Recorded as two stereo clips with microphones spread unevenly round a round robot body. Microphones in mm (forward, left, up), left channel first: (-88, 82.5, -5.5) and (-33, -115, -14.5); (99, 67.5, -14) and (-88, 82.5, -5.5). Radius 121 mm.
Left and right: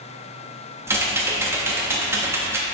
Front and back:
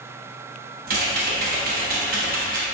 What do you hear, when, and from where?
0.9 s typing on a keyboard: 145° right, 1.3 m